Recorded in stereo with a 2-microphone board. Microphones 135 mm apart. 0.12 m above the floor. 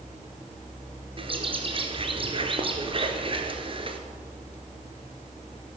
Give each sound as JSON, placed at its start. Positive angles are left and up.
{"t": 1.2, "sound": "a bird", "side_deg": -45, "distance_m": 1.4}